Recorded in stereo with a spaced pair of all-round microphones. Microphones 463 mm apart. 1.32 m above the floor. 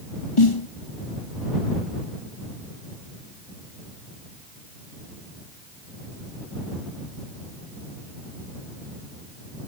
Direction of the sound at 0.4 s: 80° left.